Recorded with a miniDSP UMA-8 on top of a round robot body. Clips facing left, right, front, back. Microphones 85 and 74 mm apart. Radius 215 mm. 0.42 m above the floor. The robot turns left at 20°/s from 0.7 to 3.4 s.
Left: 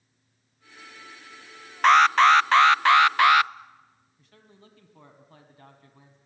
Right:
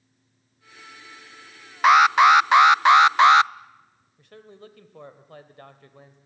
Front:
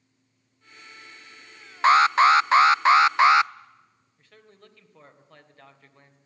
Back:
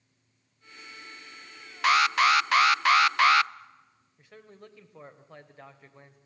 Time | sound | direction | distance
1.8 | an alarm | 15° right | 0.5 m
4.2 | a man speaking | 105° right | 2.5 m